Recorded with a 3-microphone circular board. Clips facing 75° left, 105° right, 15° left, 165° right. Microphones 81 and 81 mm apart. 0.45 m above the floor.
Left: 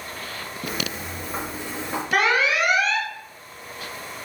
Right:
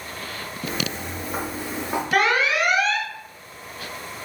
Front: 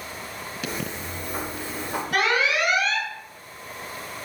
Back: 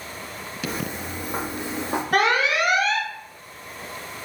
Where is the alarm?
160° left, 0.7 m.